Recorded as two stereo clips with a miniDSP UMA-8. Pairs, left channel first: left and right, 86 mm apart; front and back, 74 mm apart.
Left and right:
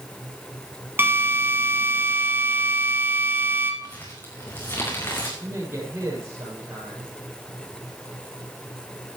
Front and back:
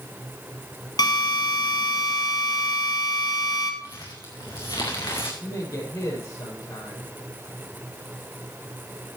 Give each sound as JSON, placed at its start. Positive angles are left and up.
{"t": 1.0, "sound": "a drill", "azimuth_deg": -25, "distance_m": 2.0}
{"t": 3.8, "sound": "crumpling", "azimuth_deg": 30, "distance_m": 3.5}
{"t": 5.4, "sound": "a man speaking", "azimuth_deg": -35, "distance_m": 7.5}